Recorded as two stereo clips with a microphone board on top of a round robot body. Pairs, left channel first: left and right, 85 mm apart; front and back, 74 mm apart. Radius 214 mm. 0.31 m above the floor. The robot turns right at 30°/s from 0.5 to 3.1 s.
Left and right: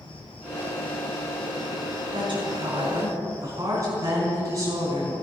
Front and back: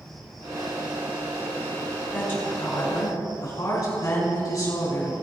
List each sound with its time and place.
0.0 s an insect: 85° left, 2.5 m; by 5.2 s 165° left, 2.5 m
2.1 s a woman speaking: 70° right, 5.5 m; by 5.1 s 40° right, 5.5 m